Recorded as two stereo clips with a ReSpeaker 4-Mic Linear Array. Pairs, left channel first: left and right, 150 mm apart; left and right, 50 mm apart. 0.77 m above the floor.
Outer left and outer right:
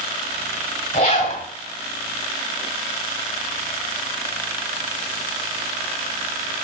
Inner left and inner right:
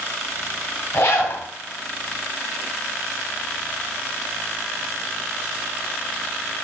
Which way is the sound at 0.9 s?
50° left (ahead or behind).